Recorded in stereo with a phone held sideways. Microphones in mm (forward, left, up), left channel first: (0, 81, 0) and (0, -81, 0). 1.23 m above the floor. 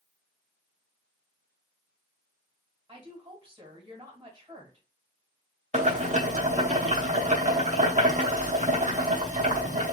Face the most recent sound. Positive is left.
turn(degrees=-45)  # may be behind; listen again after turning